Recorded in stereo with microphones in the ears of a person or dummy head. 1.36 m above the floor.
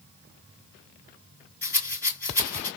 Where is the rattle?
15° left (ahead or behind), 5 m.